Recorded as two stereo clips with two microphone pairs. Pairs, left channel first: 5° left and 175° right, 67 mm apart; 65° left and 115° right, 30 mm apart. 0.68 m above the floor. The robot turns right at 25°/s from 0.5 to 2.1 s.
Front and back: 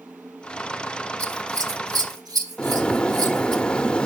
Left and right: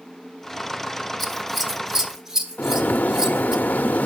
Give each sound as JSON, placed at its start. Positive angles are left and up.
{"t": 1.2, "sound": "scissors", "azimuth_deg": 155, "distance_m": 1.2}
{"t": 2.6, "sound": "a bird", "azimuth_deg": 80, "distance_m": 0.6}